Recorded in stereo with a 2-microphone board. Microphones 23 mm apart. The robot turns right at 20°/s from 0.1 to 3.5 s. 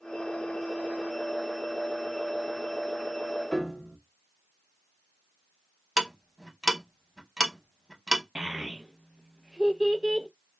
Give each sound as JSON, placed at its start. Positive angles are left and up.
{"t": 3.5, "sound": "a piano", "side_deg": 20, "distance_m": 0.7}
{"t": 6.0, "sound": "ticking", "side_deg": -10, "distance_m": 0.7}
{"t": 8.3, "sound": "a child speaking", "side_deg": -25, "distance_m": 0.6}